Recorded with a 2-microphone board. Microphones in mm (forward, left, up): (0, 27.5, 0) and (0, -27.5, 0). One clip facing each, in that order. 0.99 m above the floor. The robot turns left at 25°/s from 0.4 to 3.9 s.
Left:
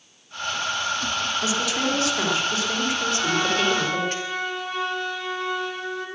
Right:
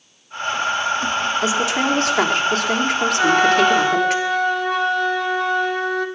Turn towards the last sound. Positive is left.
turn(degrees=-70)  # may be behind; listen again after turning